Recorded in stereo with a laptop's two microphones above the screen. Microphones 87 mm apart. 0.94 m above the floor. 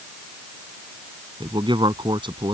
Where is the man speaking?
65° right (ahead or behind).